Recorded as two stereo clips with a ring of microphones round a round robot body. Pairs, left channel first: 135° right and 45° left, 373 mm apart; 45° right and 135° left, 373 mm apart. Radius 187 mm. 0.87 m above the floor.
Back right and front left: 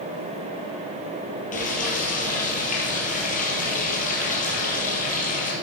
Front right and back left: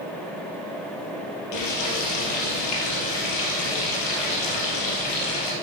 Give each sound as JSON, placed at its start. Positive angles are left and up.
{"t": 1.5, "sound": "frying", "azimuth_deg": -65, "distance_m": 3.5}